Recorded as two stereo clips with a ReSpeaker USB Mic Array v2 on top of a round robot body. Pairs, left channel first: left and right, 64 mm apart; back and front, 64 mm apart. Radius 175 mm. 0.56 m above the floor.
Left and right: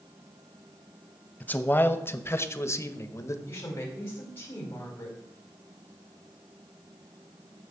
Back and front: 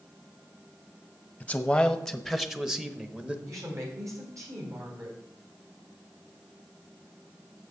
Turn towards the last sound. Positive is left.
turn(degrees=40)